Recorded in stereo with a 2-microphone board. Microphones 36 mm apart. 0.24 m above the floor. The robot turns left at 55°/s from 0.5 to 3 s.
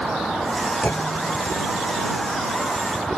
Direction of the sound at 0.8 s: 75° left.